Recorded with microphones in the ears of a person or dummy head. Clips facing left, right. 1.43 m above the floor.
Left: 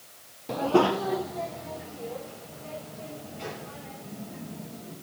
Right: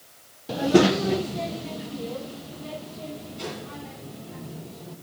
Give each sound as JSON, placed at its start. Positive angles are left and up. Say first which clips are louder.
{"t": 0.5, "sound": "a child speaking", "louder": "right 4 dB", "side_deg": 5, "distance_m": 0.5}